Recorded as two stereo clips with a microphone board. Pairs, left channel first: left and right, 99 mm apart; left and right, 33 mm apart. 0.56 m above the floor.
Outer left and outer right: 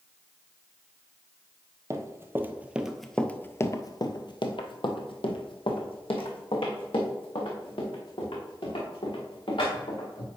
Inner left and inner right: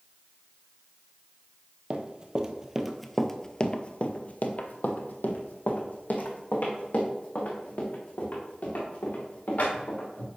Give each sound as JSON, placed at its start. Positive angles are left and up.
{"t": 1.9, "sound": "running footsteps", "side_deg": -35, "distance_m": 1.0}